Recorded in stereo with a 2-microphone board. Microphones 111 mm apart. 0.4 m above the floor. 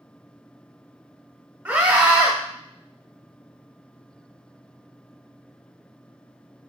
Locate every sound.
1.6 s a scream: 20° right (ahead or behind), 0.9 m